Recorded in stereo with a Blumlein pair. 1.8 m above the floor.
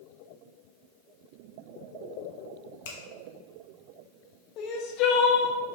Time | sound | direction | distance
2.9 | a finger snap | 55° left | 0.8 m
4.6 | crying | 35° left | 0.6 m